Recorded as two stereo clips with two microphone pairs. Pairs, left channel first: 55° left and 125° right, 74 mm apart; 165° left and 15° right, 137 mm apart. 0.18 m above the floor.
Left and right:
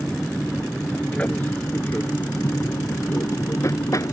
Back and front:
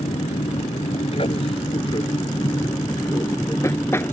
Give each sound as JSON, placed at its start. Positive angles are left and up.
{"t": 0.0, "sound": "an aircraft", "azimuth_deg": 140}